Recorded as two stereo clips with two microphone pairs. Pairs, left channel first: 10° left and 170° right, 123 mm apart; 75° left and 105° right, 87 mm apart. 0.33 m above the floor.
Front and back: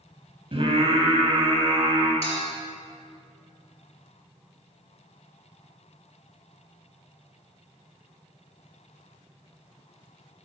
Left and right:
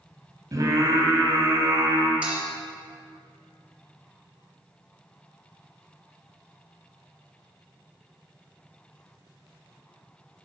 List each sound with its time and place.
0.5 s singing: 145° right, 2 m
2.2 s a clink: 25° right, 4 m